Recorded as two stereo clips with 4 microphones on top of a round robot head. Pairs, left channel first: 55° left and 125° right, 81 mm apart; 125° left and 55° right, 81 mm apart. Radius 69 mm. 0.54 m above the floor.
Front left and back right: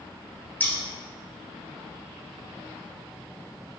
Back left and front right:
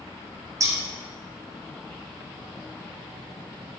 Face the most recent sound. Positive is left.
turn(degrees=-15)